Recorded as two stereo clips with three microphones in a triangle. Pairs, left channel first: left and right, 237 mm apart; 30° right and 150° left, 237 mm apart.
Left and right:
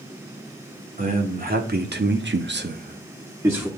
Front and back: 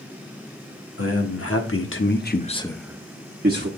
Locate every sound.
1.0 s a man speaking: 35° right, 1.7 m; by 3.7 s 170° right, 1.1 m